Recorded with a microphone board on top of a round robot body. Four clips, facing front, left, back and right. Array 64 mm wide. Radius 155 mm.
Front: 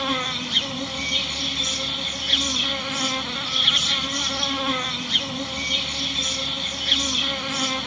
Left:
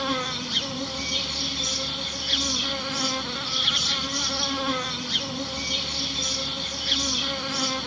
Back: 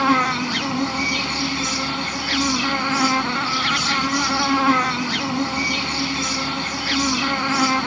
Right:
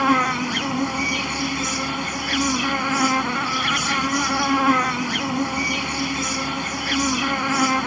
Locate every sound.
0.0 s an insect: 135° right